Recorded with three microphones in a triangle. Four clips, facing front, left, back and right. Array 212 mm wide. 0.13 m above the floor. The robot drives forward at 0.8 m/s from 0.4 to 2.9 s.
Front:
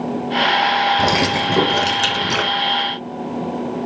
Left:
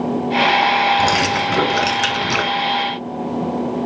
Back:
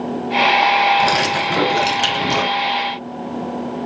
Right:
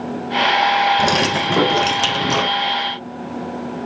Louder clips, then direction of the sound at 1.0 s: Left 1 dB, back 1 dB; 30° right.